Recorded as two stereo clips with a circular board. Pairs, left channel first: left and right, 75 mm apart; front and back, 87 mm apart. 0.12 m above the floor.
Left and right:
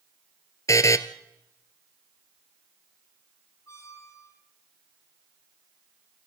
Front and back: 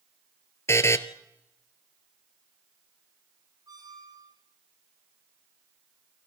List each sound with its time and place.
0.7 s a buzzer: 55° left, 1.3 m
3.7 s a squeak: 140° left, 2.5 m